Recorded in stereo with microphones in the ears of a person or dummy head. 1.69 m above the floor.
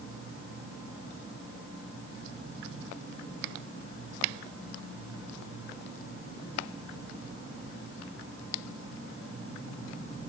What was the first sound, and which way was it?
Only background noise.